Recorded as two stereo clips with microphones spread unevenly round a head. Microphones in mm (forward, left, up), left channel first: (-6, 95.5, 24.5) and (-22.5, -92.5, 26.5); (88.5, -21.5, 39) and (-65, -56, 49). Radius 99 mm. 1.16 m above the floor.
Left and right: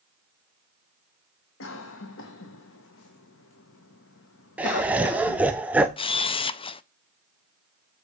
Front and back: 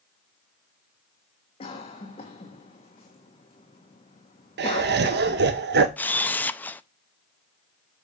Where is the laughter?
Straight behind, 0.7 m.